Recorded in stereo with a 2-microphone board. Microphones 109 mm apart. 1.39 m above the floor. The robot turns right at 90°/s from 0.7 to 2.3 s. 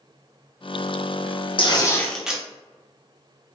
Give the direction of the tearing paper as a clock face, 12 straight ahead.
8 o'clock.